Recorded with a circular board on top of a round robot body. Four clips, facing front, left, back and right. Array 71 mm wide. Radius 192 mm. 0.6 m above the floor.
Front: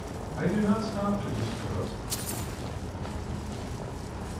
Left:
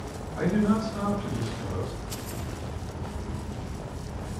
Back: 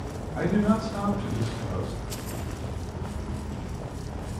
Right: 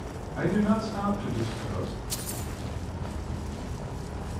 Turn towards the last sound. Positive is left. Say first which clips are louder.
# left 1 dB, back 3 dB
turn(degrees=-165)